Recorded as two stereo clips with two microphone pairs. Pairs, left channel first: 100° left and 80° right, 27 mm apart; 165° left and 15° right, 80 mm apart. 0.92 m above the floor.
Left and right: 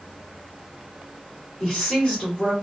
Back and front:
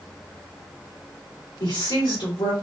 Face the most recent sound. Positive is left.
turn(degrees=155)